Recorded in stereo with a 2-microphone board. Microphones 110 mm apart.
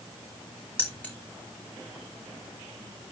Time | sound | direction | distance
0.8 | keys jangling | 15° left (ahead or behind) | 2.5 m